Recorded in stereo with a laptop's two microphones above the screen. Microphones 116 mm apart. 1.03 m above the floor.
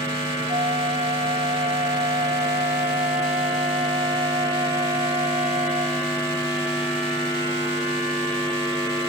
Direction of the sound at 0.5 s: 65° right (ahead or behind).